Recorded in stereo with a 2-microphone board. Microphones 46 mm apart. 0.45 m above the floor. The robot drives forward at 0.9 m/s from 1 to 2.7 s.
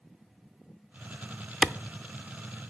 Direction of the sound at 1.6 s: 20° right (ahead or behind).